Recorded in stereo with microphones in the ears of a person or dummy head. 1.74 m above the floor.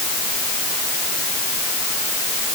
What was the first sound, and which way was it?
Only background noise.